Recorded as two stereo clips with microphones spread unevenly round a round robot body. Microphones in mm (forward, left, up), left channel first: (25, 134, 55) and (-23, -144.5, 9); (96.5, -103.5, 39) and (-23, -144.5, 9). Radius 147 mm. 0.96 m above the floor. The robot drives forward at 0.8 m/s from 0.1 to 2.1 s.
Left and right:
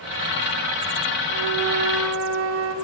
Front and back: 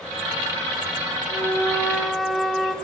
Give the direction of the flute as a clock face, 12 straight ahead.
1 o'clock.